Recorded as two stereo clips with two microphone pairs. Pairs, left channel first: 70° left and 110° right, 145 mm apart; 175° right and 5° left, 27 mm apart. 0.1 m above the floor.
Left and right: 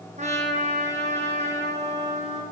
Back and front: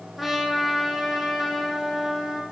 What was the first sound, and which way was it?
A trumpet, 70° right.